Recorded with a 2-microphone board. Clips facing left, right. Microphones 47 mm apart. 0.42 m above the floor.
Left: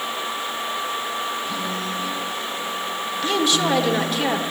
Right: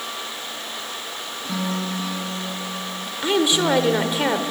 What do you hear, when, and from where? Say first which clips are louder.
1.4 s a guitar: even; 60° right (ahead or behind), 9 m
3.2 s a woman speaking: right 2 dB; 20° right (ahead or behind), 1.6 m